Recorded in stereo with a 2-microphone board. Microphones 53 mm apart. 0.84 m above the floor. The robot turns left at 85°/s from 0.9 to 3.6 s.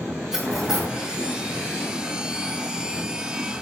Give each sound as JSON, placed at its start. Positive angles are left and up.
{"t": 0.3, "sound": "cutlery clinking", "side_deg": -10, "distance_m": 2.0}